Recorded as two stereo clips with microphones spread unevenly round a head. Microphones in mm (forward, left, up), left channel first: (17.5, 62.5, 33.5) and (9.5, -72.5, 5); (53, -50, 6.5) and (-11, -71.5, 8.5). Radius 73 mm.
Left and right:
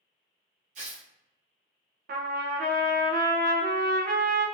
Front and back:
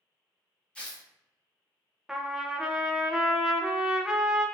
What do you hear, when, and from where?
0.8 s tearing paper: 55° right, 1.1 m
2.1 s a trumpet: 80° right, 0.6 m